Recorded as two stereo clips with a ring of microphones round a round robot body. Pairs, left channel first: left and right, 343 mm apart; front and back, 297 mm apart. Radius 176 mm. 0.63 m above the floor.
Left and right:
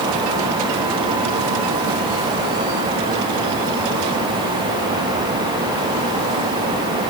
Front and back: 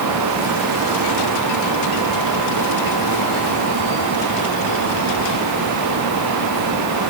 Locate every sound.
Only background noise.